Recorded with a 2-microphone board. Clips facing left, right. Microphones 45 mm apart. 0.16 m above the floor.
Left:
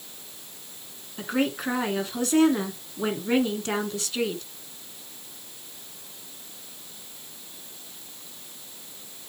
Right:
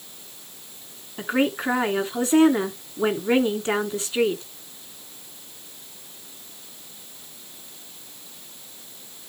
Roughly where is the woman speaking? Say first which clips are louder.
Right 3 dB; right.